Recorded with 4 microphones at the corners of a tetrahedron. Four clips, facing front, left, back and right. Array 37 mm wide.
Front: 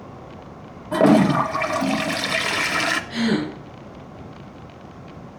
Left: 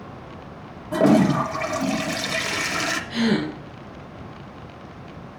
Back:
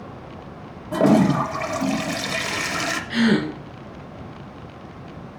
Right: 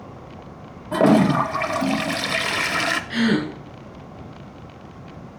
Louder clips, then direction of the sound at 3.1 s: Even, back 3 dB; 135° right.